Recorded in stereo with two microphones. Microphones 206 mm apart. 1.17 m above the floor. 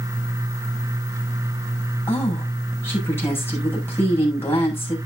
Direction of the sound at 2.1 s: 10° left (ahead or behind).